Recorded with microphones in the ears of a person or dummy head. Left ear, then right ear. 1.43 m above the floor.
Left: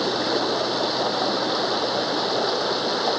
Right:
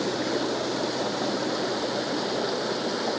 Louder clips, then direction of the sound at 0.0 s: Left 5 dB; 35° left (ahead or behind).